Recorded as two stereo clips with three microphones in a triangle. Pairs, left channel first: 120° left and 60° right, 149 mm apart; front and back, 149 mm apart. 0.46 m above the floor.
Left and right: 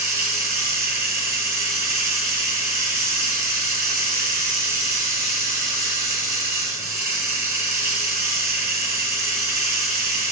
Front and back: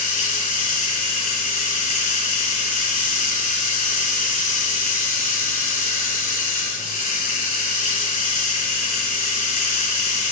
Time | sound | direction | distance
0.0 | running water | 10° left | 4 m